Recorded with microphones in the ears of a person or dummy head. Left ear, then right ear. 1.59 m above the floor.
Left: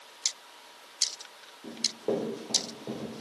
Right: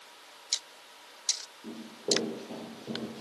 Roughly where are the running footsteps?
Left.